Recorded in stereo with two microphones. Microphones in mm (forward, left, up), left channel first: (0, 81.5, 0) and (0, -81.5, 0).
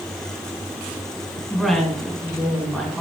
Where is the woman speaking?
Centre (ahead or behind), 2.5 m.